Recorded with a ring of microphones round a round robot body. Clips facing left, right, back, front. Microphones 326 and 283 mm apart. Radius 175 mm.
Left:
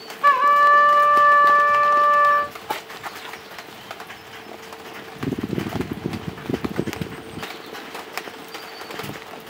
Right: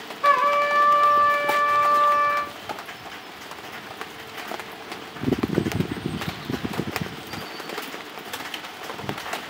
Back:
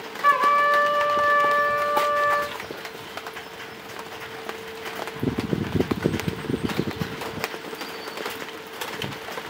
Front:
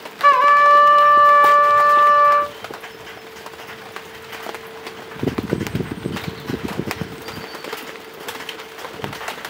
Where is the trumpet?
10° left, 4.5 m.